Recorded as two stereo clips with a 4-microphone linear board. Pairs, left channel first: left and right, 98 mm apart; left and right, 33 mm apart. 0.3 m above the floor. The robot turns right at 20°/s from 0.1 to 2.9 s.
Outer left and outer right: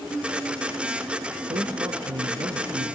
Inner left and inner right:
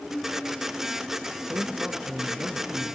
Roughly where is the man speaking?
Right.